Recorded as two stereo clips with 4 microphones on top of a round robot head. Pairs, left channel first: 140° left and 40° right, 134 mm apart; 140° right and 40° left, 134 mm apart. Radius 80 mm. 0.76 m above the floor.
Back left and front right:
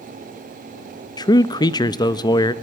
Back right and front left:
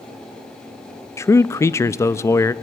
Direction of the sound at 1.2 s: 170° left.